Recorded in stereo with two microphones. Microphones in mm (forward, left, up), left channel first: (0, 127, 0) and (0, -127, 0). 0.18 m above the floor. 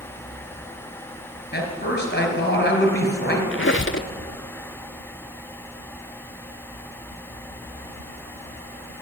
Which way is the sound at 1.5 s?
40° left (ahead or behind).